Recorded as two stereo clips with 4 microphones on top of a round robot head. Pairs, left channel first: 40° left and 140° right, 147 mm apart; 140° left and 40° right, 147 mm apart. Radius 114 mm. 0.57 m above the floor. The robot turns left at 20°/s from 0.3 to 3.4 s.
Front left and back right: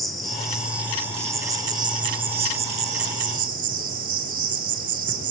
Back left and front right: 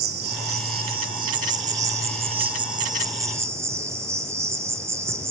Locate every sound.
0.0 s an insect: 50° right, 0.8 m; by 5.3 s 110° right, 0.8 m